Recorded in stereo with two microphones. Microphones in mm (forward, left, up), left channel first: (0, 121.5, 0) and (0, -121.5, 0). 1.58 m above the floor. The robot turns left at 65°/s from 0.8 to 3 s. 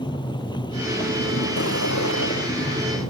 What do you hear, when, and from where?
0.0 s a vehicle: 20° left (ahead or behind)